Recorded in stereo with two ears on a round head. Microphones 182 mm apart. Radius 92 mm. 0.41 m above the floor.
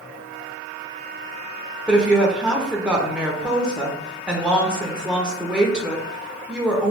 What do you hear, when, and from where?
1.9 s a woman speaking: 5° right (ahead or behind), 0.8 m